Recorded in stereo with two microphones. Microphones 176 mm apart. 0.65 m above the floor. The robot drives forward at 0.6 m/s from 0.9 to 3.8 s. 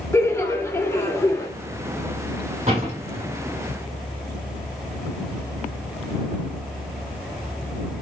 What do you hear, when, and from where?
0.1 s laughter: 15° left (ahead or behind), 1.7 m; by 1.5 s 20° left (ahead or behind), 1.5 m
2.7 s a door slam: 40° right (ahead or behind), 4.5 m; by 3.3 s 45° right (ahead or behind), 4.5 m